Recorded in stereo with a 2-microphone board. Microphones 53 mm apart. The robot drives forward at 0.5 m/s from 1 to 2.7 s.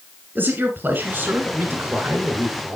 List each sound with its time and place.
0.3 s a man speaking: 40° right (ahead or behind), 1.9 m; by 2.8 s 35° right (ahead or behind), 2 m